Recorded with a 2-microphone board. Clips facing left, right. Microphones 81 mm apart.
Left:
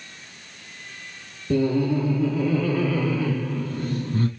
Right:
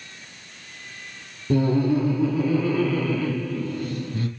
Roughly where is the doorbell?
No doorbell in this recording.